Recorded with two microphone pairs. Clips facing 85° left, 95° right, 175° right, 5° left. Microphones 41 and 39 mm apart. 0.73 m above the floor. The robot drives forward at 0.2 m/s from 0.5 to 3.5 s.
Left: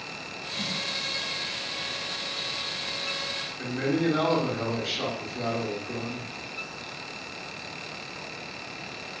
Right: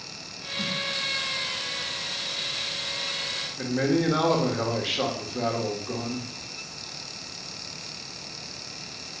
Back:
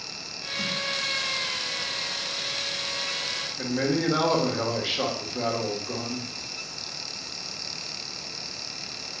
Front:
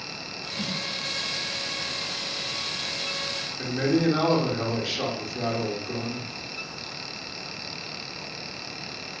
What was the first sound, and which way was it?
A snare drum, 30° left.